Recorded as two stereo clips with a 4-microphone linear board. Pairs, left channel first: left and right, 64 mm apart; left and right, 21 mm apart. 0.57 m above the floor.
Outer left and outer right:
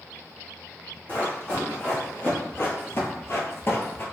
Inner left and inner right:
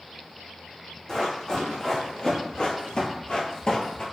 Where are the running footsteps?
30° left (ahead or behind), 1.6 m; by 4.0 s 35° left (ahead or behind), 0.7 m.